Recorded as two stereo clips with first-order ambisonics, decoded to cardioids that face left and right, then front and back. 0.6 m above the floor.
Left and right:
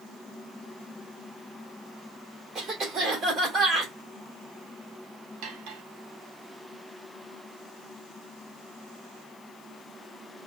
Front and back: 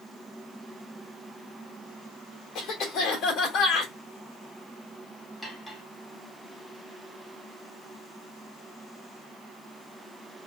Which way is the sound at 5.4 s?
85° right.